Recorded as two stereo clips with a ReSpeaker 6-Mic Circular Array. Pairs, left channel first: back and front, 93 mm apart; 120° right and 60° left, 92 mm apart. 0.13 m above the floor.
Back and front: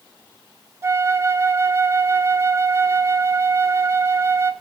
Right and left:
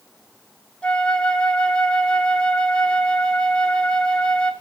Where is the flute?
45° right, 0.7 m.